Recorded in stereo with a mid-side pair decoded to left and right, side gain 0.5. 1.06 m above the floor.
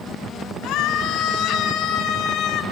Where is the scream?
70° left, 3.5 m.